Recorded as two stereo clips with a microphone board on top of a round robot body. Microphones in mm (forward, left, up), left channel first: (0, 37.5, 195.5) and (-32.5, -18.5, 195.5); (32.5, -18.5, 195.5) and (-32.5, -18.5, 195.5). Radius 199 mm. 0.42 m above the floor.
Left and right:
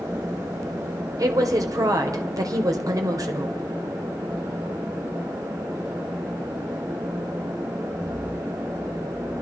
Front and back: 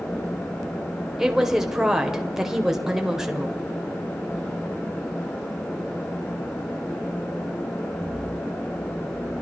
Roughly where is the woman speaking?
Right.